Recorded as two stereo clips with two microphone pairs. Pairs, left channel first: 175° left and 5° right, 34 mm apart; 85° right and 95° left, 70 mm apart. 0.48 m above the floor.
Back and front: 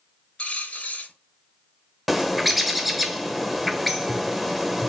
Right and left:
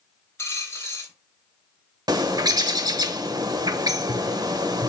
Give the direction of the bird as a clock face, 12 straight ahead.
9 o'clock.